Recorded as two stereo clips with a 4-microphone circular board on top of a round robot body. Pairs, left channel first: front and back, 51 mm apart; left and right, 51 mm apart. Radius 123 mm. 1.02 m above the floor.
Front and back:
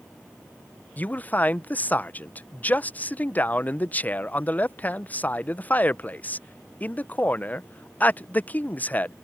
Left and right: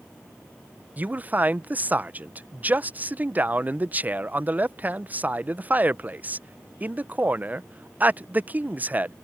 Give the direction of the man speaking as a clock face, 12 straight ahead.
2 o'clock.